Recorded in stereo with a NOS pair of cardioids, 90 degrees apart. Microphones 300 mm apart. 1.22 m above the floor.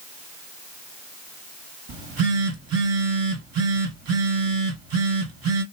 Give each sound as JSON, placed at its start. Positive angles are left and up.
{"t": 1.9, "sound": "a phone buzzing", "azimuth_deg": -55, "distance_m": 2.0}